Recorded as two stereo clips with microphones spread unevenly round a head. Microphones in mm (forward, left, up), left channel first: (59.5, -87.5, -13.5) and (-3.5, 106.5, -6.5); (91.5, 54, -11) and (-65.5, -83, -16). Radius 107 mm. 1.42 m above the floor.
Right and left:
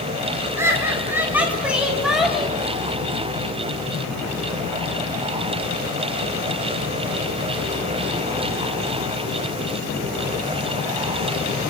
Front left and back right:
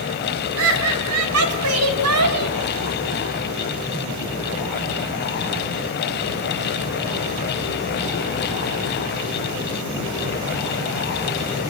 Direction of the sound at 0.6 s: 170° right.